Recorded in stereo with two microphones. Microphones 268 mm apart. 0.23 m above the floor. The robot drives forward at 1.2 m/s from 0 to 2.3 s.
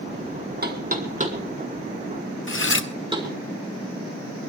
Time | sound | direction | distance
0.6 | knocking | 35° right (ahead or behind) | 1.9 m
2.5 | cutlery clinking | 45° left (ahead or behind) | 0.8 m